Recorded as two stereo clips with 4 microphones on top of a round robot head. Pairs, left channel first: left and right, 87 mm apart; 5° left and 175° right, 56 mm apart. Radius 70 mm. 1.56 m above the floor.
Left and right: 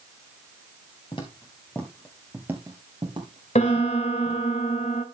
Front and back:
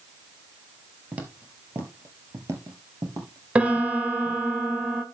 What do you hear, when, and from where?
1.1 s footsteps: 130° left, 1.9 m; by 4.4 s 115° right, 3 m
3.5 s a piano: 120° left, 1.9 m